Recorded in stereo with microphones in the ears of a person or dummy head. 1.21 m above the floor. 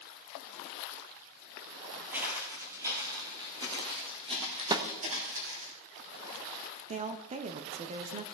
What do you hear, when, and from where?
2.1 s footsteps: centre (ahead or behind), 2 m; by 5.7 s 30° right (ahead or behind), 3.5 m
4.7 s a snare drum: 10° right (ahead or behind), 0.9 m
6.9 s a woman speaking: 25° right (ahead or behind), 0.8 m